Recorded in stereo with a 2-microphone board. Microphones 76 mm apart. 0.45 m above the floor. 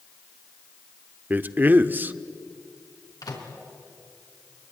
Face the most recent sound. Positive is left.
turn(degrees=55)  # may be behind; listen again after turning